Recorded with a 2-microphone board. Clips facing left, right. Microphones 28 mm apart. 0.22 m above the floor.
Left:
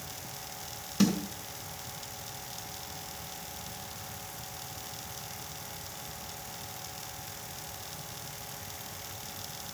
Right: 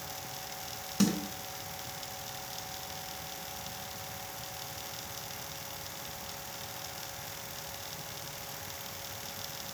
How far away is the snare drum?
About 2.5 m.